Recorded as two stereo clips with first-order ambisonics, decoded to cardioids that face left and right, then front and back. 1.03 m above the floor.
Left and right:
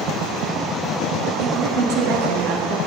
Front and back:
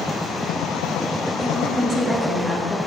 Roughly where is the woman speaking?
Right.